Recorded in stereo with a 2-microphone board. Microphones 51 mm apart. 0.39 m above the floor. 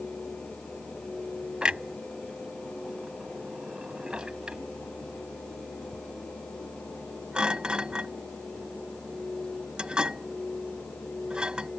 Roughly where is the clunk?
Centre.